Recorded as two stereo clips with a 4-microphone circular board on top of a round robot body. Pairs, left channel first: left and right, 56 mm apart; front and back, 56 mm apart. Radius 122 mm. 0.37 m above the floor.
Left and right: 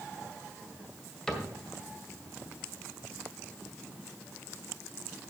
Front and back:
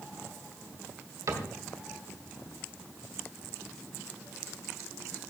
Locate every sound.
1.3 s a cupboard door: 170° left, 2.5 m